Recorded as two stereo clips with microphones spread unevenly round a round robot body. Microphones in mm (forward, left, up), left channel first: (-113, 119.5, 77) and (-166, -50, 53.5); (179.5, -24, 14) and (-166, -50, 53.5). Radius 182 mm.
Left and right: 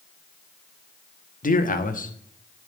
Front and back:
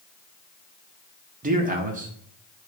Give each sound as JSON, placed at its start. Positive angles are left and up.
{"t": 1.4, "sound": "a man speaking", "azimuth_deg": 115, "distance_m": 1.3}